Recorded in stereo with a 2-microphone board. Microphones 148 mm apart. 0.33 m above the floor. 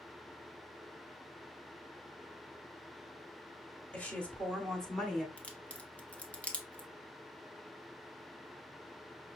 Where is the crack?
10° left (ahead or behind), 0.8 m.